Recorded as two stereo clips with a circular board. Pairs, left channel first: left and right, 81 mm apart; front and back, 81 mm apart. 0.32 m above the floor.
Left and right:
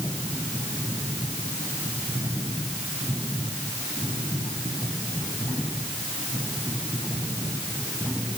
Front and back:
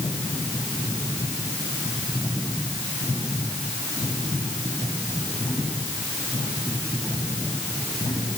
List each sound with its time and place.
Only background noise.